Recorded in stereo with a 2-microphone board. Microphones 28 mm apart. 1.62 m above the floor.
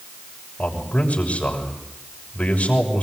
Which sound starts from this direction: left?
A man speaking, at 0.6 s.